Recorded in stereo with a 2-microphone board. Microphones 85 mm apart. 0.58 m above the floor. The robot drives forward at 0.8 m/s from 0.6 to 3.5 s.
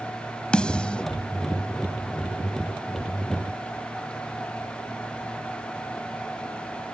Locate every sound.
0.5 s a snare drum: 10° left (ahead or behind)